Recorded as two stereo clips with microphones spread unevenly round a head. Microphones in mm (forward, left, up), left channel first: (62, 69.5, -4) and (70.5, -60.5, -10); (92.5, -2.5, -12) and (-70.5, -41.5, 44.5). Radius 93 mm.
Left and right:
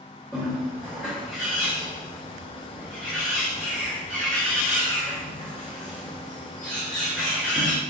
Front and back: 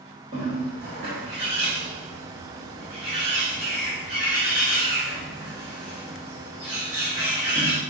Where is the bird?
175° left, 1.2 m.